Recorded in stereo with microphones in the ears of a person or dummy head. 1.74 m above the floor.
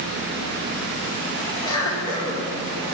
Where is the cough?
20° left (ahead or behind), 4.5 m.